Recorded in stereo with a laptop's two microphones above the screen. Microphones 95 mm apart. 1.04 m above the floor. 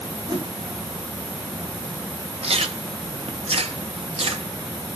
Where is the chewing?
80° right, 0.9 m.